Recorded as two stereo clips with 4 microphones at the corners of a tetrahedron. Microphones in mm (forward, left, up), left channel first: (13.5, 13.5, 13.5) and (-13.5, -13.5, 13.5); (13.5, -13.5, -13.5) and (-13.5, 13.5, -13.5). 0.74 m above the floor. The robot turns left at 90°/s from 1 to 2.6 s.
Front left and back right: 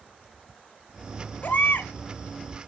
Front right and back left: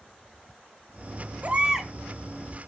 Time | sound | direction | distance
1.4 | a baby crying | 90° left | 1.1 m